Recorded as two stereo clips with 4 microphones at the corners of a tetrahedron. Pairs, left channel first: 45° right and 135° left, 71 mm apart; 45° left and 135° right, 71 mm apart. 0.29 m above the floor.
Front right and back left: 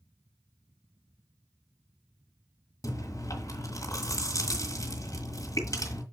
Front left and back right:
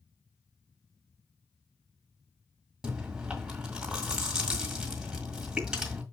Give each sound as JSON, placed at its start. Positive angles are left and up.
{"t": 2.8, "sound": "chewing", "azimuth_deg": -60, "distance_m": 2.0}